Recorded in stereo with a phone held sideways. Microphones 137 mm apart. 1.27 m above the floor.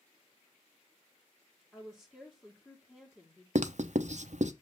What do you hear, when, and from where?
1.7 s a woman speaking: 5° left (ahead or behind), 1.7 m
3.5 s writing: 60° right (ahead or behind), 0.6 m